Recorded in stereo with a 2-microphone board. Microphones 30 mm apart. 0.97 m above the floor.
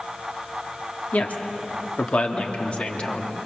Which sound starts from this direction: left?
A woman speaking, at 1.1 s.